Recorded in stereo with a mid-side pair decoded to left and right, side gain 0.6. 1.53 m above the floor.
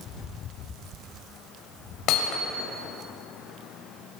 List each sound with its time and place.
2.1 s hammering: 65° left, 6.5 m